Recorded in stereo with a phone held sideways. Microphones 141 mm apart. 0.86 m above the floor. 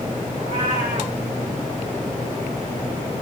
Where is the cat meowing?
75° right (ahead or behind), 2.5 m.